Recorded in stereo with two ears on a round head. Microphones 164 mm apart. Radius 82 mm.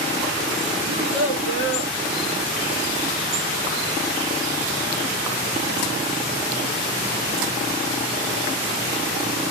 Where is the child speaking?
70° right (ahead or behind), 1.9 m.